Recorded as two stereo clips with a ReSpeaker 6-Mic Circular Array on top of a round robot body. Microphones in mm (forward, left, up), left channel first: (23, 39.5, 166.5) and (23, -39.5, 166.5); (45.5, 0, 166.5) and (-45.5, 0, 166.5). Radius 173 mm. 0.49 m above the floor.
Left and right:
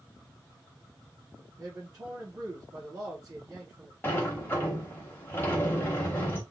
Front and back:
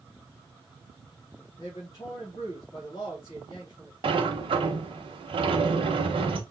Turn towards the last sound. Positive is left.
turn(degrees=155)